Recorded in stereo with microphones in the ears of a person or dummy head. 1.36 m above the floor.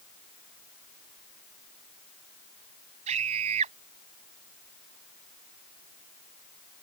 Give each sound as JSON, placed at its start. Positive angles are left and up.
{"t": 3.1, "sound": "a scream", "side_deg": -35}